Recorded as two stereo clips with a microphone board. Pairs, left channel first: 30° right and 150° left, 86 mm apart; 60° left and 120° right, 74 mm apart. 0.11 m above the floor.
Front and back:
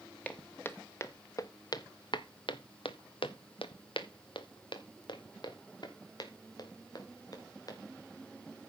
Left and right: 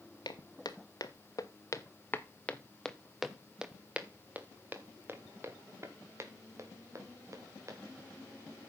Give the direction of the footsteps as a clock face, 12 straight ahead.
11 o'clock.